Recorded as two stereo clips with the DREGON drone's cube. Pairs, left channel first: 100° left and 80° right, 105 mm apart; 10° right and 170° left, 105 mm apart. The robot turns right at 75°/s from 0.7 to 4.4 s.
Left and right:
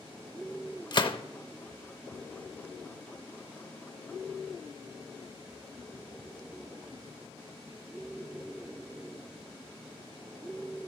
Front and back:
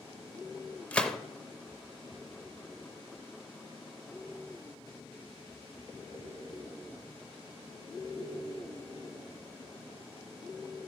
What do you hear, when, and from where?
0.9 s a gunshot: 60° left, 0.6 m; by 1.2 s 80° left, 0.6 m